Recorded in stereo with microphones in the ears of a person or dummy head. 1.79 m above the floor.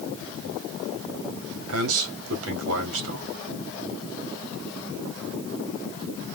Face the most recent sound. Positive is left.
turn(degrees=-80)